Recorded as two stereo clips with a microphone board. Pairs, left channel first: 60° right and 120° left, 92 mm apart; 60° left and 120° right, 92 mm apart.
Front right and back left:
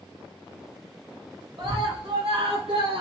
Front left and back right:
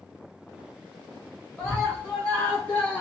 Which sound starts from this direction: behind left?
A scream, at 1.6 s.